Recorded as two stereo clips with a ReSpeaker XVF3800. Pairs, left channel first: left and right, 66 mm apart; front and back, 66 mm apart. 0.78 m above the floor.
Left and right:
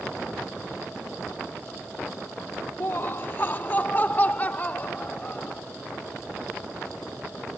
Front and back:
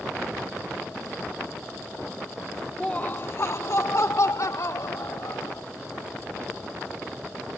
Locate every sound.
2.8 s laughter: 70° left; by 5.6 s 25° left